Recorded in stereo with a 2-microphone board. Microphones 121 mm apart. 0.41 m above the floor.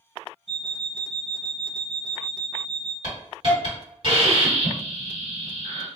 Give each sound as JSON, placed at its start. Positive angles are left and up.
{"t": 0.5, "sound": "an alarm clock", "side_deg": -65, "distance_m": 0.7}
{"t": 3.0, "sound": "a hiss", "side_deg": -50, "distance_m": 1.7}